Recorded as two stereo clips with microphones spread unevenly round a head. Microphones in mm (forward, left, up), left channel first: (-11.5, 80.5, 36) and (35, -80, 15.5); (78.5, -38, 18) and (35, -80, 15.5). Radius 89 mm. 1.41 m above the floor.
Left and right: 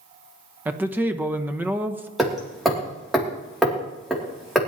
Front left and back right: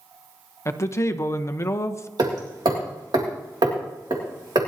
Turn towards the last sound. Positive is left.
turn(degrees=-165)